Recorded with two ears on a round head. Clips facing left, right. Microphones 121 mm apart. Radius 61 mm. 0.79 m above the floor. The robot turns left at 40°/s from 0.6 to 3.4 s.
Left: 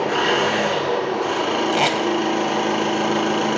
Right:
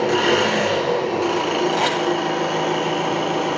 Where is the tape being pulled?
25° left (ahead or behind), 1.8 m; by 2.0 s 10° left (ahead or behind), 1.8 m.